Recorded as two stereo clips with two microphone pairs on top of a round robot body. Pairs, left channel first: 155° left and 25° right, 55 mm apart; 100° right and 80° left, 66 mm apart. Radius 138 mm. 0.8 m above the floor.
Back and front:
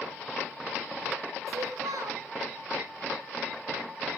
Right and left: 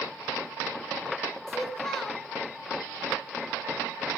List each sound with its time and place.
1.5 s a child speaking: 15° right, 4.5 m